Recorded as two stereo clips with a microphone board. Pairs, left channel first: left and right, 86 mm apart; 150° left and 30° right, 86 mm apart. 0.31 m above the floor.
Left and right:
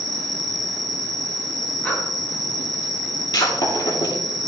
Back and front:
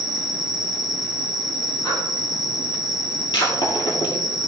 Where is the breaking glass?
125° left, 3 m.